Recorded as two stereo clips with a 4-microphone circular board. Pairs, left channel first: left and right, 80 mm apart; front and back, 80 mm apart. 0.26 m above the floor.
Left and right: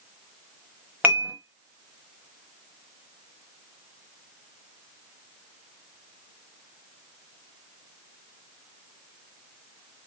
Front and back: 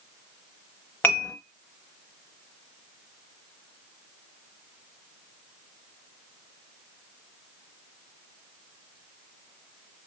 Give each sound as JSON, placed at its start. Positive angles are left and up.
{"t": 1.0, "sound": "dishes clattering", "azimuth_deg": -45, "distance_m": 0.9}